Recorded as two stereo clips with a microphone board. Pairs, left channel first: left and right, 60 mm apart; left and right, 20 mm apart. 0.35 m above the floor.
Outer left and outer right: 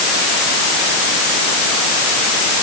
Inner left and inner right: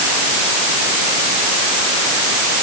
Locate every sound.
Only background noise.